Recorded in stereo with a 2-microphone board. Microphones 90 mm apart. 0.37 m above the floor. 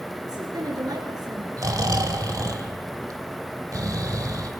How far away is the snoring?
About 1.9 m.